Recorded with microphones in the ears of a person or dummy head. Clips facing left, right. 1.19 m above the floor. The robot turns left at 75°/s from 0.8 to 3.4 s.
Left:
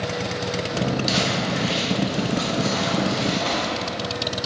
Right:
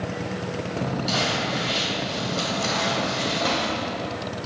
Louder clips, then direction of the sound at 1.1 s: Left 2 dB; 45° left (ahead or behind).